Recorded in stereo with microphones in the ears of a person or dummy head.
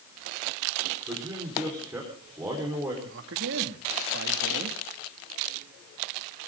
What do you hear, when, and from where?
1.1 s a man speaking: 15° right (ahead or behind), 4.5 m
3.0 s a man speaking: 70° right (ahead or behind), 2.5 m